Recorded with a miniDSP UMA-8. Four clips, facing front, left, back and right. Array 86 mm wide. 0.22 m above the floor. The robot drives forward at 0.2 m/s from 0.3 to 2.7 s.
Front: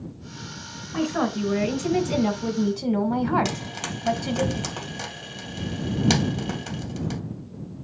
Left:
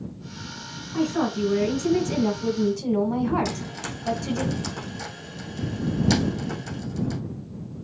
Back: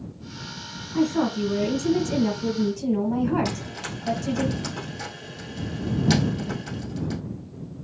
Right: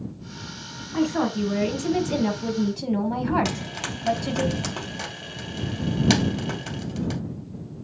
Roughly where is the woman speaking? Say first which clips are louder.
Right 1 dB, back 2 dB; ahead right.